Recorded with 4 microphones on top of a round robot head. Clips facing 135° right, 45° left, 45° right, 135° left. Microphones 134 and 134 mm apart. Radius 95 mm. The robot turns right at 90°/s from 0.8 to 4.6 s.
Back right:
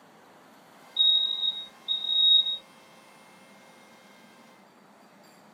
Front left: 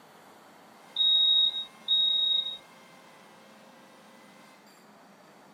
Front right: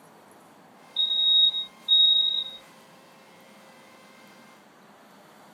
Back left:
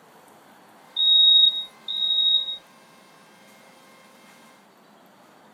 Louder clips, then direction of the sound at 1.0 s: Front left 1 dB, back left 5 dB; straight ahead.